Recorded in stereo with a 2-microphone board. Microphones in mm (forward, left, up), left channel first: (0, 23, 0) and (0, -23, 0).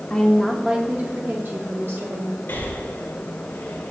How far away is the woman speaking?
About 0.9 m.